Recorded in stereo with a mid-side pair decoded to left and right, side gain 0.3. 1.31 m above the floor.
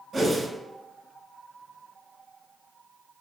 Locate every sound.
0.1 s a whoosh: 45° right, 1.0 m